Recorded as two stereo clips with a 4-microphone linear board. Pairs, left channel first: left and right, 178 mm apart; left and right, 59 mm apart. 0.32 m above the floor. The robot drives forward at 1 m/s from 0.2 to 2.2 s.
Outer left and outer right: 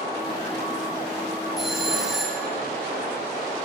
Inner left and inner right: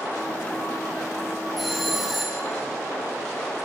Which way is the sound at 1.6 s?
Centre (ahead or behind).